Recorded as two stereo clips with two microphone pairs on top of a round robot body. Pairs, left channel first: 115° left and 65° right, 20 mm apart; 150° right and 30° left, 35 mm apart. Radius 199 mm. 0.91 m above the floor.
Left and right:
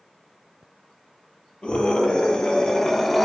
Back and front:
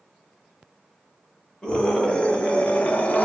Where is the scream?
145° left, 2.5 m; by 3.2 s 160° right, 1.6 m.